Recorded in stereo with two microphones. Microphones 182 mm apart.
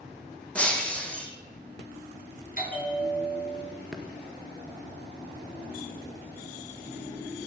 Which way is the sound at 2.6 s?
55° left (ahead or behind).